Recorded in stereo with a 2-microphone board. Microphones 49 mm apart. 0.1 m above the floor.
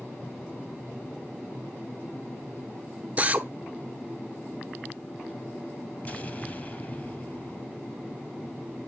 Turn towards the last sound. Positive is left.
turn(degrees=35)  # may be behind; listen again after turning